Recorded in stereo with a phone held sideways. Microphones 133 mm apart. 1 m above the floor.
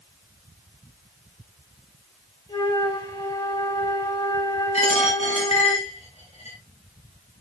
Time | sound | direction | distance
2.5 | a flute | 35° left (ahead or behind) | 6 m
4.7 | a dropped coin | 55° left (ahead or behind) | 5.5 m